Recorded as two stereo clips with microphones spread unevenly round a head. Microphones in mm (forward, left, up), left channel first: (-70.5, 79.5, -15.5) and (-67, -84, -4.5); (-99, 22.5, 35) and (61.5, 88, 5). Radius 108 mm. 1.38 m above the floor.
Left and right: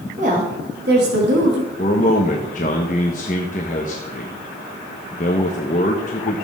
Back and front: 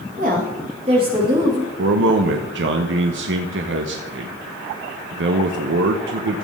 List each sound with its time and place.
0.2 s a woman speaking: 30° right, 2 m; by 1.7 s 55° right, 2 m
1.8 s a man speaking: 35° left, 0.9 m